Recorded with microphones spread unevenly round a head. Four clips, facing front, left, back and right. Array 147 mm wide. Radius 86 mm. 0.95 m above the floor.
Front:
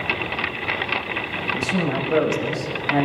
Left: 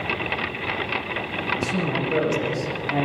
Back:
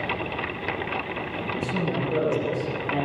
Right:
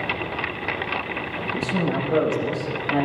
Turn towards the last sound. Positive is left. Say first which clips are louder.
# right 2 dB, front 4 dB
turn(degrees=-25)